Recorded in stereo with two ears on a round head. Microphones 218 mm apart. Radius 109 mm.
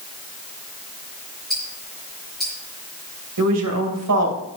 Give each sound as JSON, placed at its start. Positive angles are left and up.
{"t": 1.5, "sound": "ticking", "side_deg": 0, "distance_m": 5.5}
{"t": 3.4, "sound": "a woman speaking", "side_deg": -75, "distance_m": 2.0}